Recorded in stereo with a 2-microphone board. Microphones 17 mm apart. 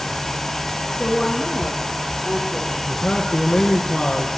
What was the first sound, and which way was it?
A woman speaking, 35° left (ahead or behind).